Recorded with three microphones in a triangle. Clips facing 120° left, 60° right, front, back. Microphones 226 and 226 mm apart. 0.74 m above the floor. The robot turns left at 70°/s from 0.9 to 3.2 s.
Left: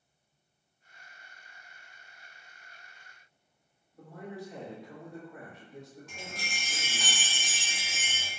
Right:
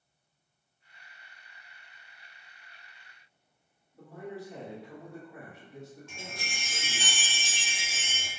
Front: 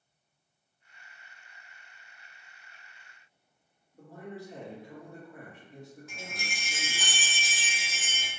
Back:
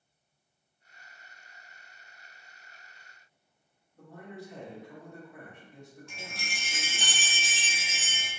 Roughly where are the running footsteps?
No running footsteps in this recording.